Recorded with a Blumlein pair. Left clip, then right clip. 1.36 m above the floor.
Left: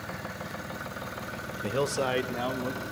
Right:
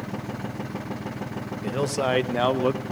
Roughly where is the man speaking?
Ahead.